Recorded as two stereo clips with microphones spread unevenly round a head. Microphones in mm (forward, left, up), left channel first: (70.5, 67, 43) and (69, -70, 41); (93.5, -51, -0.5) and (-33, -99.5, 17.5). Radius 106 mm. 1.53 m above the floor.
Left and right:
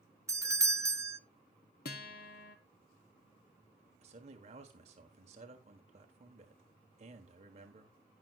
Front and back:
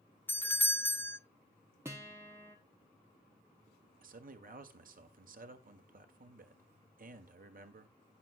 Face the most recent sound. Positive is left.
turn(degrees=-140)